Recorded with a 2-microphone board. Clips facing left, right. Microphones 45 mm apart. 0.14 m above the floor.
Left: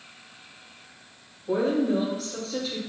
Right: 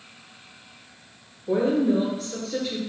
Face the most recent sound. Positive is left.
turn(degrees=-35)  # may be behind; listen again after turning